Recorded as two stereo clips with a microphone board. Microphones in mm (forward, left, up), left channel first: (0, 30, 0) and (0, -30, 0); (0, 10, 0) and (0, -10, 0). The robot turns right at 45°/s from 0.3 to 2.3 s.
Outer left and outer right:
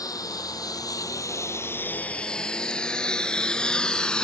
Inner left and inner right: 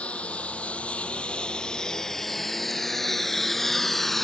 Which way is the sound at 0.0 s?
75° left (ahead or behind).